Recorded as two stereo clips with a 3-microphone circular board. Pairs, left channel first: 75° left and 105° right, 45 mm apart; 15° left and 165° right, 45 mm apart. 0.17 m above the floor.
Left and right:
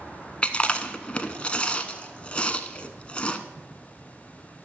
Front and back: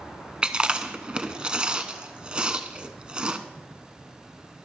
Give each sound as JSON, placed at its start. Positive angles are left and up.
{"t": 0.4, "sound": "chewing", "azimuth_deg": 130, "distance_m": 0.6}